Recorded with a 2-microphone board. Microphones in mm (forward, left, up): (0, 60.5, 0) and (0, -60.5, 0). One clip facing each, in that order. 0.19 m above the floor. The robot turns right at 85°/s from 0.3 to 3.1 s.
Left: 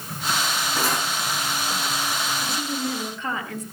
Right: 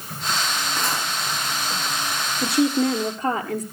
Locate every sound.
0.8 s cutlery clinking: 10° left (ahead or behind), 5.5 m; by 1.1 s 15° right (ahead or behind), 5.5 m
2.4 s a woman speaking: 100° right, 3 m; by 3.6 s 40° right, 3 m